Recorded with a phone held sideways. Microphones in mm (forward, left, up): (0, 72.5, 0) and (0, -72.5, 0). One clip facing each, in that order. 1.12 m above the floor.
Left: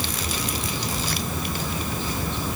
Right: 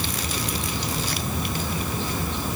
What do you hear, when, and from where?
Only background noise.